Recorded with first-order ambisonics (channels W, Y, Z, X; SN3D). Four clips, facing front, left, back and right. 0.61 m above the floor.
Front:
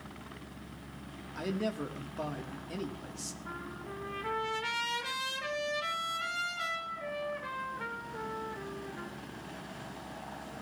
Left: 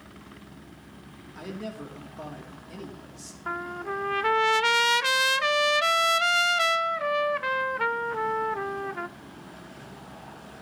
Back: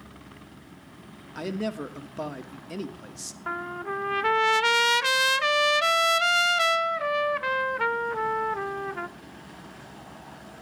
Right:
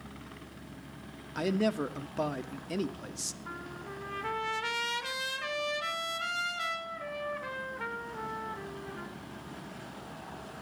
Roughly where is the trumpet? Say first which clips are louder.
Left 10 dB, back 15 dB; behind left.